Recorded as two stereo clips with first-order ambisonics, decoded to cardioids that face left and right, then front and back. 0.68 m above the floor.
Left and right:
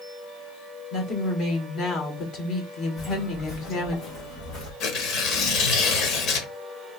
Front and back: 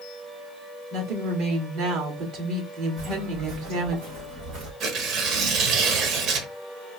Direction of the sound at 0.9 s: 140° left.